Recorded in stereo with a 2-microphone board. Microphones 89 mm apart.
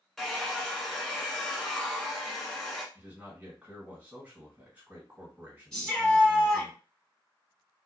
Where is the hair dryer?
5° left (ahead or behind), 0.9 m.